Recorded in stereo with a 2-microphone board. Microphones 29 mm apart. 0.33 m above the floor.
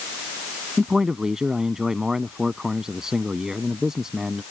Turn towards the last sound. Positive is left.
turn(degrees=-20)  # may be behind; listen again after turning